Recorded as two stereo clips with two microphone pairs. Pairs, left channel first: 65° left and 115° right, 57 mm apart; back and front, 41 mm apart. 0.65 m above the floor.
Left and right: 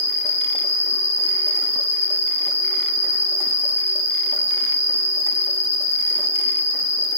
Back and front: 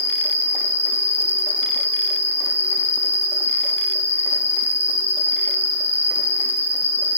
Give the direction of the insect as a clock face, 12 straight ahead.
1 o'clock.